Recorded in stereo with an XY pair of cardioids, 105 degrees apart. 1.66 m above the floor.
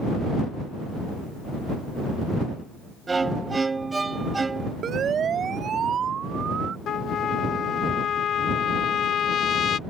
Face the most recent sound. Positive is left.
turn(degrees=60)